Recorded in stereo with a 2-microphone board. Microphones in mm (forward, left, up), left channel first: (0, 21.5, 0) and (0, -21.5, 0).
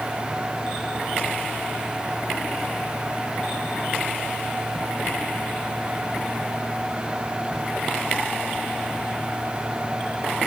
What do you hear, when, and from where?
Only background noise.